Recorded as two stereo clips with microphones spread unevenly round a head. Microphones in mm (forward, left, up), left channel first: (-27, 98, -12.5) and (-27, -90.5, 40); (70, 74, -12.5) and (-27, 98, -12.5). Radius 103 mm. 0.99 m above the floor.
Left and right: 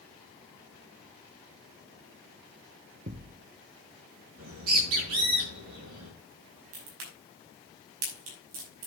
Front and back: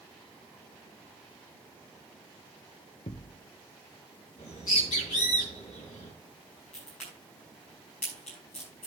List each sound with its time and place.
3.1 s a thud: 50° right, 0.6 m
4.4 s a bird: 85° right, 5.5 m
6.7 s a crack: 100° right, 5.5 m